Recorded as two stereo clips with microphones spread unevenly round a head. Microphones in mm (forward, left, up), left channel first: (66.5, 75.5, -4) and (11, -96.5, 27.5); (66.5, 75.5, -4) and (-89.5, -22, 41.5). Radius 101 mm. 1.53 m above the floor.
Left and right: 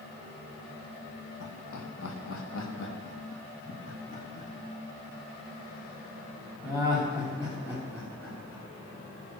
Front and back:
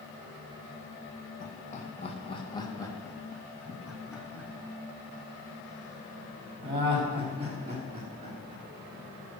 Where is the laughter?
75° left, 2 m; by 8.6 s 155° left, 5.5 m.